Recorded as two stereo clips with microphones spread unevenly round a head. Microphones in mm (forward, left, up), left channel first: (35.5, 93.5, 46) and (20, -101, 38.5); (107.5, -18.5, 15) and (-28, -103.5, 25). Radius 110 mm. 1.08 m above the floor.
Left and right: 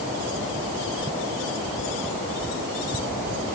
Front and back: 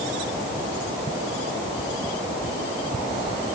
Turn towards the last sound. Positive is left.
No sound to turn to.